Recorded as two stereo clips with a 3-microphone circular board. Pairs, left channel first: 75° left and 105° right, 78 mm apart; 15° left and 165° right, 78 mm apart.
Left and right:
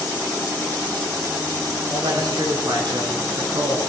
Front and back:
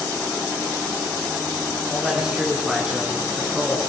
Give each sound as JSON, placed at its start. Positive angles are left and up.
{"t": 1.9, "sound": "a man speaking", "azimuth_deg": -80, "distance_m": 6.0}